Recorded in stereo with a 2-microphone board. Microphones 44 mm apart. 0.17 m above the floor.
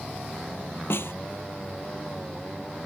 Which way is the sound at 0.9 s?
65° left (ahead or behind).